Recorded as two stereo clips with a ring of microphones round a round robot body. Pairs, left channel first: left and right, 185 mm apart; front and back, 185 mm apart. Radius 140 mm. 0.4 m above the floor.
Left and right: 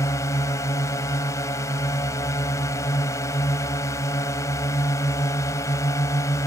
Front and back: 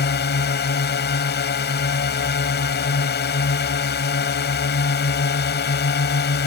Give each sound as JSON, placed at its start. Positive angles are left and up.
{"t": 0.0, "sound": "a drone", "azimuth_deg": 15}